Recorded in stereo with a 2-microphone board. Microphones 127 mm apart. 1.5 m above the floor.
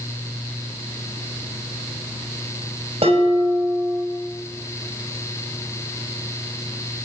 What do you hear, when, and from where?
3.0 s dishes clattering: 50° right (ahead or behind), 6 m